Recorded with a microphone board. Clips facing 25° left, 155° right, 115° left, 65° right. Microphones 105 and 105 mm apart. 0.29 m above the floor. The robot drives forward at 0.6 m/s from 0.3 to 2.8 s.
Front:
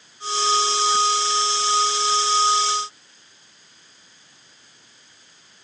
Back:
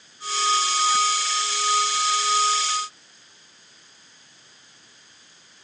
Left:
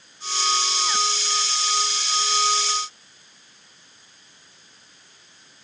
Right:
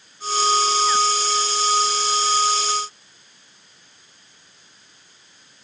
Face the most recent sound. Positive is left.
No sound to turn to.